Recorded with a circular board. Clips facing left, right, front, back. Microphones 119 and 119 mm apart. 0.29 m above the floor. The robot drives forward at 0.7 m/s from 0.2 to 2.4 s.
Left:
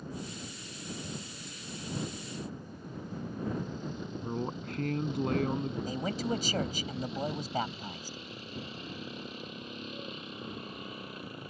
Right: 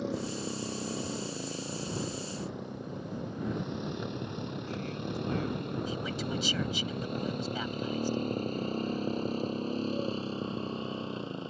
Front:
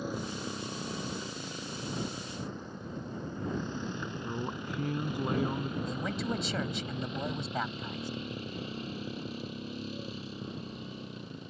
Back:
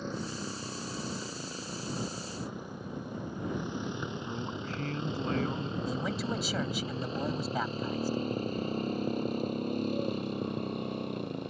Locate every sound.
0.0 s a motorcycle: 80° right; by 11.5 s 155° right
4.2 s a man speaking: 70° left
5.9 s a man speaking: 95° left